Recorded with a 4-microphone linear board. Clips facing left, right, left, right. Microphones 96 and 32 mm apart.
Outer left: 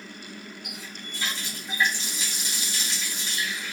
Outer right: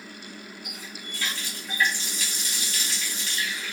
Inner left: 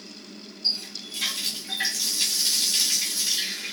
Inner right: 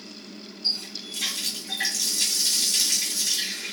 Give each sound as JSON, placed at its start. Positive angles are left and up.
{"t": 0.6, "sound": "a running tap", "side_deg": 20, "distance_m": 1.1}